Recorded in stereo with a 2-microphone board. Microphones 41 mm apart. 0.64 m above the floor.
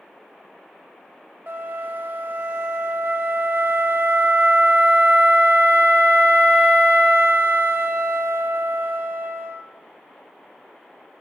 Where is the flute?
50° right (ahead or behind), 0.5 m.